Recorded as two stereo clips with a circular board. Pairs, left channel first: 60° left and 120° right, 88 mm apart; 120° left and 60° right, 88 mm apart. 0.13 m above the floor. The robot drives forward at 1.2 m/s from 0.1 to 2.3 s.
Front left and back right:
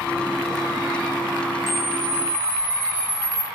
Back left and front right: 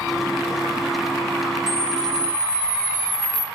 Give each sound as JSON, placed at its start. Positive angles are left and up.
{"t": 1.7, "sound": "a camera shutter", "azimuth_deg": 145, "distance_m": 0.8}